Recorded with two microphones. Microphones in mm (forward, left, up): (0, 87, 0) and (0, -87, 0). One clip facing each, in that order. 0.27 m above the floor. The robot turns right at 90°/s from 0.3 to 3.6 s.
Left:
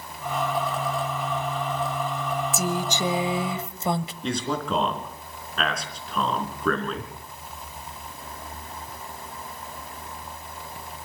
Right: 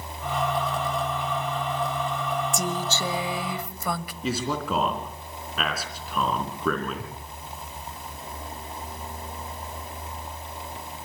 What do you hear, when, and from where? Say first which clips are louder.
2.5 s a woman speaking: left 2 dB; 5° left (ahead or behind), 0.9 m; by 4.1 s 25° left (ahead or behind), 0.9 m
4.2 s a man speaking: right 1 dB; 5° right (ahead or behind), 3.5 m